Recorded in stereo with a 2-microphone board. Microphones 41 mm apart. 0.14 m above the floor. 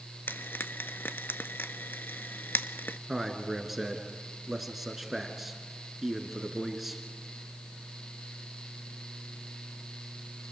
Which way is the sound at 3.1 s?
5° right (ahead or behind).